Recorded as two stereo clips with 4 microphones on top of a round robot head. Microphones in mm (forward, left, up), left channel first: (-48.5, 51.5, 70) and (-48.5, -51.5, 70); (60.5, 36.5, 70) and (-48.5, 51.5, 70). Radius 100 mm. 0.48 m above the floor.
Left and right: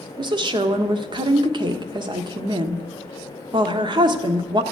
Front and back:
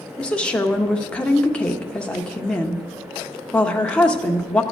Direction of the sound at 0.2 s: 85° right.